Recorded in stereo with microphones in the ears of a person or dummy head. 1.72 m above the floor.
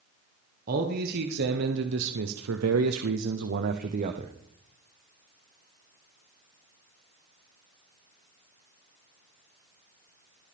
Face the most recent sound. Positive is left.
turn(degrees=-35)  # may be behind; listen again after turning